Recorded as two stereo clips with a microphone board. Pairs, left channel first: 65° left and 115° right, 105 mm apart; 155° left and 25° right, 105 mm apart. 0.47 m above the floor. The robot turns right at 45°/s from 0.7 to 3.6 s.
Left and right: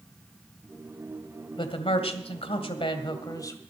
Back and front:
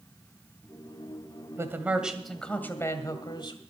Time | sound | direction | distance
1.6 | a man speaking | 35° left | 2.0 m